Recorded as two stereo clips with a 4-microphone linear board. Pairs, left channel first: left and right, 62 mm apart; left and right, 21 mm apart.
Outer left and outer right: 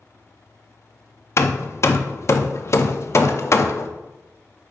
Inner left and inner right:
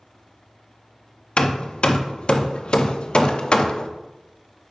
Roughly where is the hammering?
Left.